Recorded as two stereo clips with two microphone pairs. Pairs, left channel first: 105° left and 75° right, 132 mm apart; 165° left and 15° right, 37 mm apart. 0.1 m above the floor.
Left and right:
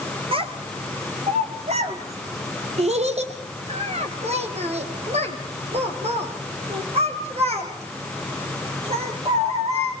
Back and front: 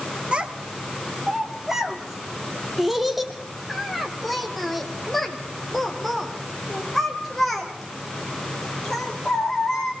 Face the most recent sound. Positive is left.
turn(degrees=-110)